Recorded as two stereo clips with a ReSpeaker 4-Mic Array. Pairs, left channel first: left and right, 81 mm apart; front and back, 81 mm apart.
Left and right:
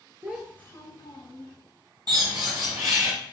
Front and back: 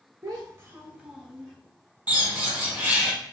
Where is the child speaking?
145° right, 0.6 m; by 1.5 s 95° left, 1.6 m.